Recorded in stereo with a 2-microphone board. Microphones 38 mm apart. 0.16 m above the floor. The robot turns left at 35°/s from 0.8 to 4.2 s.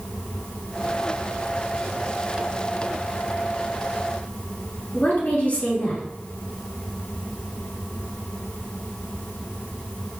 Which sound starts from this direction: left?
A woman speaking, at 4.9 s.